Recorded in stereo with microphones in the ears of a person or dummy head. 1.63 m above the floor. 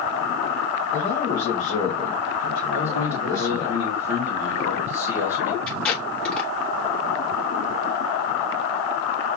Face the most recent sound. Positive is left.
turn(degrees=5)  # may be behind; listen again after turning